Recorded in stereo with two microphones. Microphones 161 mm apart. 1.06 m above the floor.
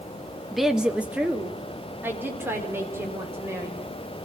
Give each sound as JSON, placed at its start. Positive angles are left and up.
{"t": 0.5, "sound": "a woman speaking", "side_deg": 0, "distance_m": 1.3}